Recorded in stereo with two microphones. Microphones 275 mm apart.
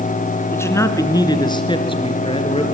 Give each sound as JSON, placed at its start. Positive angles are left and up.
{"t": 0.5, "sound": "a man speaking", "side_deg": 10, "distance_m": 1.5}